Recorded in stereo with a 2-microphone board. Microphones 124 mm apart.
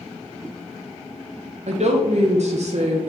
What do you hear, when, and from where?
1.7 s a woman speaking: 65° right (ahead or behind), 0.5 m